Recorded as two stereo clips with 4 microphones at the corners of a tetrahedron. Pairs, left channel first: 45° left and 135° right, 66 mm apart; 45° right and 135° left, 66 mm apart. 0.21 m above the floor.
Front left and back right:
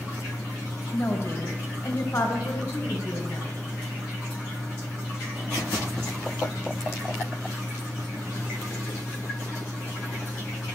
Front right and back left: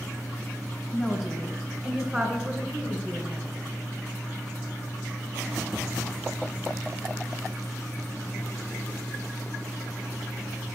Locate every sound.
0.9 s a woman speaking: 35° left, 1.3 m; by 3.5 s 70° left, 2.5 m